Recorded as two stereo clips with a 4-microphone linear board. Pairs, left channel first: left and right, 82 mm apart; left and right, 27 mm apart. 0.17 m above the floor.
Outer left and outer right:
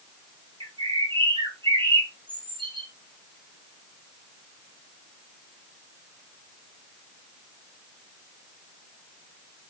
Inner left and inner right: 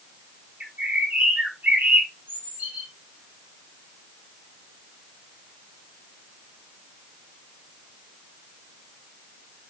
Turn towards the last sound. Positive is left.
turn(degrees=-85)